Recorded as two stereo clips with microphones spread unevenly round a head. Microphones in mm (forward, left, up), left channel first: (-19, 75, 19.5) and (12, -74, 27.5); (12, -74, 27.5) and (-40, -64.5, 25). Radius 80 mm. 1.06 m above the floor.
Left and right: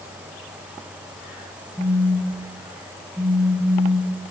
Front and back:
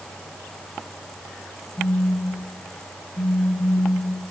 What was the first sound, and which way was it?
A phone buzzing, straight ahead.